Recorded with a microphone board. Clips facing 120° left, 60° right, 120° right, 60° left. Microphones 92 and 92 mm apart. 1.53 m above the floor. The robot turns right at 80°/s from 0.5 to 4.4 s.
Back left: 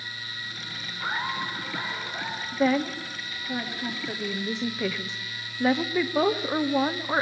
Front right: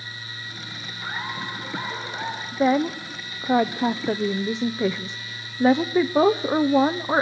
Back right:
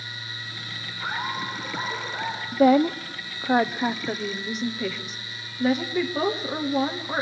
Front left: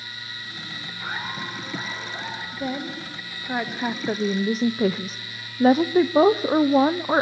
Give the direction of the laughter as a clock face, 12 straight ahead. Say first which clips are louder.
Back left 2 dB, back right 3 dB; 6 o'clock.